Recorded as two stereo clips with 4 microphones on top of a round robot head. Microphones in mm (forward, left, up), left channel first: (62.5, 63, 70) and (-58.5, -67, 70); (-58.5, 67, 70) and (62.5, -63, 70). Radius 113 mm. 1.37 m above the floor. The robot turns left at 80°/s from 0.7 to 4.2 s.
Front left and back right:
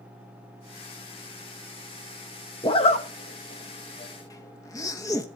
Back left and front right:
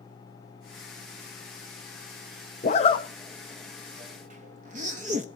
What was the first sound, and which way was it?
A zipper, 110° left.